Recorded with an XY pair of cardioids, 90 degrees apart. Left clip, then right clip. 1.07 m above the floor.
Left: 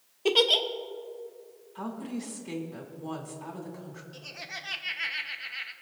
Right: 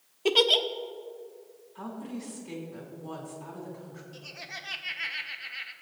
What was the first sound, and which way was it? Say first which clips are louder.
A giggle: even; 5° right.